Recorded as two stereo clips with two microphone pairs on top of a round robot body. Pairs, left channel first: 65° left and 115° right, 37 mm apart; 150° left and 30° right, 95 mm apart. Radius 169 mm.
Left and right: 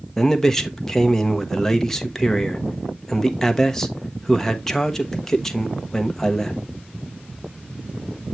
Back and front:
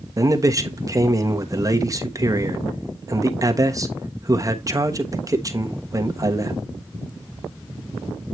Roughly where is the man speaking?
Ahead right.